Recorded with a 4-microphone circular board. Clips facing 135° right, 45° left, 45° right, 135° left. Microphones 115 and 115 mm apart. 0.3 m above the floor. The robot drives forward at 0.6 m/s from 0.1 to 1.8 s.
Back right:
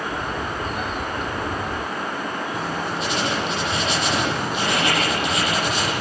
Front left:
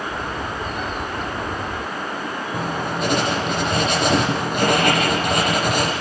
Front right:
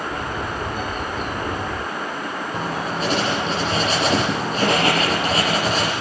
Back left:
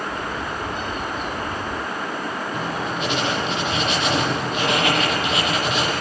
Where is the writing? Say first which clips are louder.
Front left 2 dB, front right 3 dB; 5° left, 7 m.